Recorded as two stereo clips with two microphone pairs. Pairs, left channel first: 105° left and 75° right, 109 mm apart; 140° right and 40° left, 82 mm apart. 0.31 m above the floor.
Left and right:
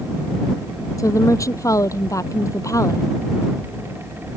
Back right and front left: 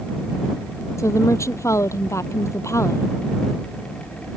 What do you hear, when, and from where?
1.0 s a woman speaking: 165° left